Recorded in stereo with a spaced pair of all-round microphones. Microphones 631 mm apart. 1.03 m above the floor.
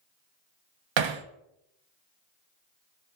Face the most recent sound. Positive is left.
turn(degrees=-50)  # may be behind; listen again after turning